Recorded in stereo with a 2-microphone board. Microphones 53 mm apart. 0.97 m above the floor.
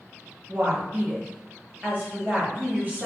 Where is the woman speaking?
30° right (ahead or behind), 1.3 m.